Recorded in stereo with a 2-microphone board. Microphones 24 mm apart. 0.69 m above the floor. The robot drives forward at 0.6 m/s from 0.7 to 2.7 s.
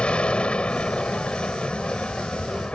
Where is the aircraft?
45° left (ahead or behind).